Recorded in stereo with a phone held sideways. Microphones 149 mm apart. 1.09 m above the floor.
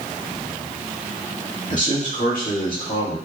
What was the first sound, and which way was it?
A man speaking, 55° left (ahead or behind).